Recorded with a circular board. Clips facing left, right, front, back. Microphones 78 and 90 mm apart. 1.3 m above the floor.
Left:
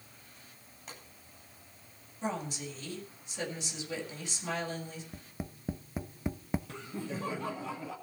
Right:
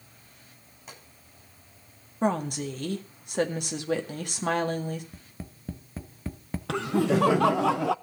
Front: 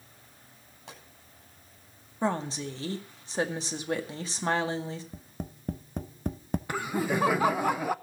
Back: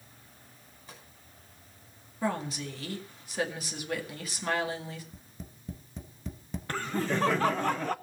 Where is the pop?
5° right, 10 m.